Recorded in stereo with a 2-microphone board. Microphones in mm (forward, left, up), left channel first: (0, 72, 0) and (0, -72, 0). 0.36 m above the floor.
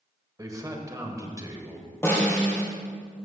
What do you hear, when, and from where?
0.4 s a man speaking: 25° right (ahead or behind), 1.2 m
2.0 s a snare drum: 15° left (ahead or behind), 2.5 m